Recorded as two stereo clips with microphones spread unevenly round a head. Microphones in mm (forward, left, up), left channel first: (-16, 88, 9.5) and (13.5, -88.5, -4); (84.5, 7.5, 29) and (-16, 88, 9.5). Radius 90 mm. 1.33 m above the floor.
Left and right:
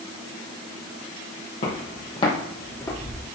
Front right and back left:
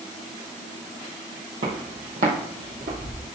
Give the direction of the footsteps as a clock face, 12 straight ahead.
8 o'clock.